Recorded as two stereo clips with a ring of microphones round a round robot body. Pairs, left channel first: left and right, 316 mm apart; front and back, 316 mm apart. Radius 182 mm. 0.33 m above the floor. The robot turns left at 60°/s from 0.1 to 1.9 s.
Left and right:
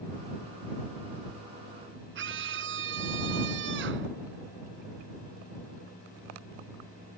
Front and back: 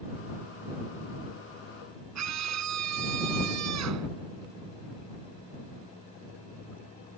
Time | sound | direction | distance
2.1 | a scream | 145° right | ?